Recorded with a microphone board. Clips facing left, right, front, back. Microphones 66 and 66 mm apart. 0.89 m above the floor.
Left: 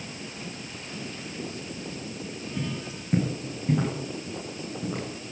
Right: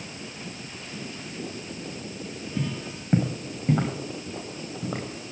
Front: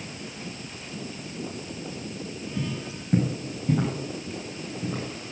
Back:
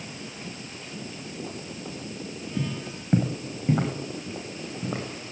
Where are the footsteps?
140° right, 2.5 m; by 5.3 s 150° right, 4 m.